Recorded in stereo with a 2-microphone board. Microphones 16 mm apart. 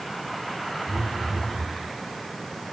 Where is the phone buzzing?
60° left (ahead or behind), 4 m.